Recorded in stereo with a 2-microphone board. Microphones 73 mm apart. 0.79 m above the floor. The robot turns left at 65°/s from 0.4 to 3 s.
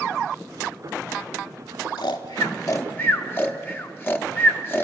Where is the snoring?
75° left (ahead or behind), 1.1 m; by 4.8 s 30° left (ahead or behind), 1.1 m.